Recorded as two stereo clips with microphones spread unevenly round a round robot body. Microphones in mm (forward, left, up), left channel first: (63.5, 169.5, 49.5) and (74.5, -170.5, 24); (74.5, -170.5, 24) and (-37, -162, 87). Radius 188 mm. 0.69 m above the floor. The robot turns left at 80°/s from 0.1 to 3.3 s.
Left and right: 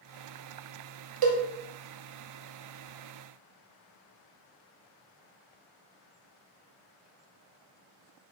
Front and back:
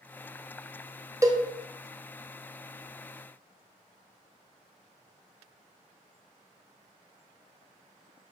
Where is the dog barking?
No dog barking in this recording.